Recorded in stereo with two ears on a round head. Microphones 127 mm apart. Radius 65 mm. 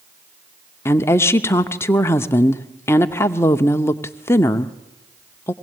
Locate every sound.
0.8 s a woman speaking: 20° left (ahead or behind), 0.7 m